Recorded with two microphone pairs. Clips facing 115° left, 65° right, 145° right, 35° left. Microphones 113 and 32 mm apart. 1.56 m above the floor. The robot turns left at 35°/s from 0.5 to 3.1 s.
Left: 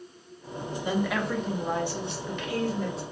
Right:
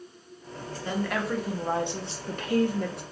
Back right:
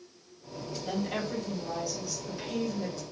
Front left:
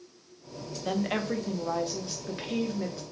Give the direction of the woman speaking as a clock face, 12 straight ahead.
11 o'clock.